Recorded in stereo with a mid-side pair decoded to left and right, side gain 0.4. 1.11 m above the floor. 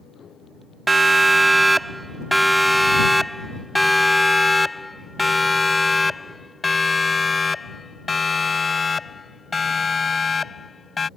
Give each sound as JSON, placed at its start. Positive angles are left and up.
{"t": 0.9, "sound": "a siren", "azimuth_deg": -35}